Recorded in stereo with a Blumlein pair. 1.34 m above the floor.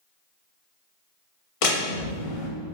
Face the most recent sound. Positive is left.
turn(degrees=45)